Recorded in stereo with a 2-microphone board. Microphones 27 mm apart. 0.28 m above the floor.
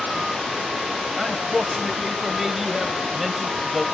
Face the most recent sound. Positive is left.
turn(degrees=-10)  # may be behind; listen again after turning